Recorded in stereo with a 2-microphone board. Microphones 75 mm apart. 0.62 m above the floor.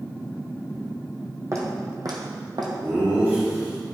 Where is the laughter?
40° right (ahead or behind), 1.6 m.